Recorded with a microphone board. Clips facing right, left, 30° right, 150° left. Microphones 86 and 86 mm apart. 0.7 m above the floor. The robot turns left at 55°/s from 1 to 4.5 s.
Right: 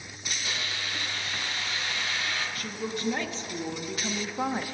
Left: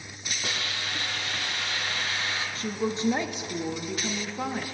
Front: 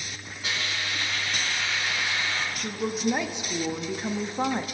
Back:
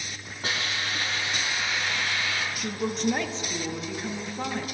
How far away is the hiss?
About 3.5 m.